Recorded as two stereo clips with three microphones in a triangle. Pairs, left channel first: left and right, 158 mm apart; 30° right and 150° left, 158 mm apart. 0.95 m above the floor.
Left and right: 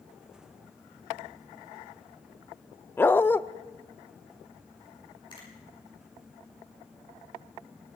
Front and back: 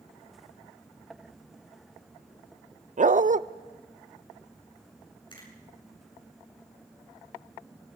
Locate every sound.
3.0 s a dog barking: 165° left, 0.6 m
5.3 s a finger snap: 30° left, 9.5 m